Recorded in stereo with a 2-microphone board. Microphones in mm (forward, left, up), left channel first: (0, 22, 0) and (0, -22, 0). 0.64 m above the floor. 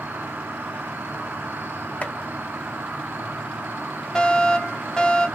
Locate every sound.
0.0 s an insect: 55° right (ahead or behind), 1.1 m
2.0 s chopping: 40° left (ahead or behind), 1.6 m
4.2 s a fire alarm: 15° left (ahead or behind), 1.5 m